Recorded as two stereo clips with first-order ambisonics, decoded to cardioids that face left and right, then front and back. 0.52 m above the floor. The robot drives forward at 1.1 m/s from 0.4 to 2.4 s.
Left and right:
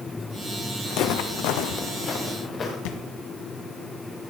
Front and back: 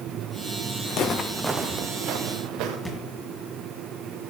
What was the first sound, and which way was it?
Footsteps, 45° left.